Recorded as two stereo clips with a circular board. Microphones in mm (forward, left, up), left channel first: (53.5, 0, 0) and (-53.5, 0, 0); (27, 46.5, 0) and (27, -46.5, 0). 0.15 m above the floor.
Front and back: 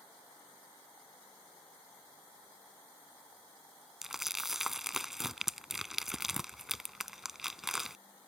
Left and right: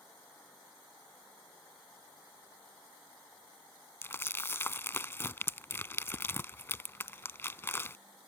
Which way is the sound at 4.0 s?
100° left.